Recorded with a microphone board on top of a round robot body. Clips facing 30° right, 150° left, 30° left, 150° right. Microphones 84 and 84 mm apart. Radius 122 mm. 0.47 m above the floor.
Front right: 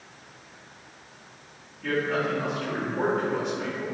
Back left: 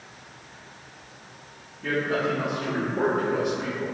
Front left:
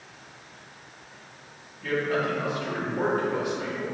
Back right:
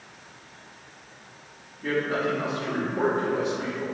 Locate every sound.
1.8 s a man speaking: 145° right, 1.5 m